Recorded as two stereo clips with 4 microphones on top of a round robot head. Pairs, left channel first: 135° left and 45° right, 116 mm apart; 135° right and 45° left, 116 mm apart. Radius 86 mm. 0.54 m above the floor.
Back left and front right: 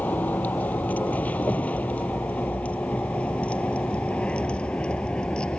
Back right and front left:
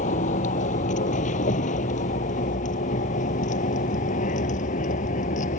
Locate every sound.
0.0 s a vehicle: 150° right; by 5.6 s 145° right